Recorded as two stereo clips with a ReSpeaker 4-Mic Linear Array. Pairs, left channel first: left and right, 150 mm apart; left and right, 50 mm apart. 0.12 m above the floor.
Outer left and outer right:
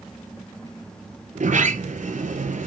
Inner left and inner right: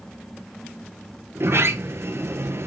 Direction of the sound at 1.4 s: 55° right (ahead or behind).